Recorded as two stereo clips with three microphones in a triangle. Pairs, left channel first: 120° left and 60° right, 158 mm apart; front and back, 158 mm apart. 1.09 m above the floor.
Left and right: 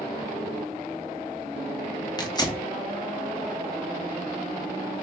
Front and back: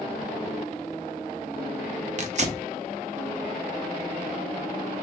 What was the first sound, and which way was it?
Tearing paper, 175° left.